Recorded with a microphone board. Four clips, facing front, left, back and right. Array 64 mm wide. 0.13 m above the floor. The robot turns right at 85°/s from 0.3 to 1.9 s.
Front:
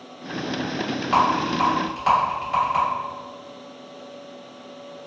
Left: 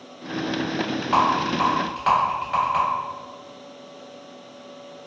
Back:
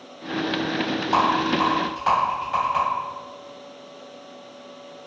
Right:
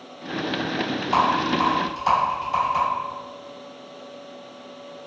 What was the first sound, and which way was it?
A rattle, 25° left.